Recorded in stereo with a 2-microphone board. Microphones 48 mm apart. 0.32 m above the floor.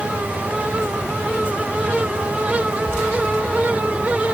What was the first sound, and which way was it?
Only background noise.